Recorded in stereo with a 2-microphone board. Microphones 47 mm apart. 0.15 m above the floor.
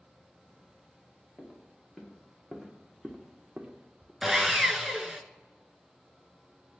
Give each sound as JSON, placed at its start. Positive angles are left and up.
{"t": 1.4, "sound": "footsteps", "side_deg": 15, "distance_m": 2.0}
{"t": 4.2, "sound": "sawing", "side_deg": -10, "distance_m": 0.6}